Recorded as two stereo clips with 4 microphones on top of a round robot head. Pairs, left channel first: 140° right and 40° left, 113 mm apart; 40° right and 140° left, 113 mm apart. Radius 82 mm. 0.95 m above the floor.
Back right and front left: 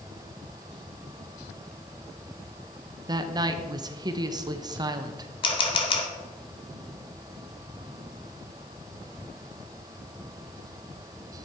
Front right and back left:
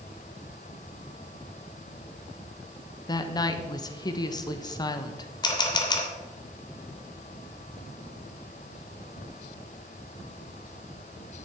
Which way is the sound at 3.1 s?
Straight ahead.